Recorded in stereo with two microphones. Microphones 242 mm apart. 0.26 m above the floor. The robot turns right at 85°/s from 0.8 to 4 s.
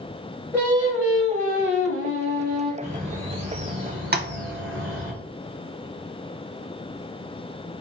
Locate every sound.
0.5 s singing: 170° left, 1.3 m; by 2.7 s 25° right, 1.3 m
2.8 s a bird: 160° left, 1.8 m; by 5.1 s 100° right, 1.8 m
4.1 s tapping: 40° right (ahead or behind), 0.5 m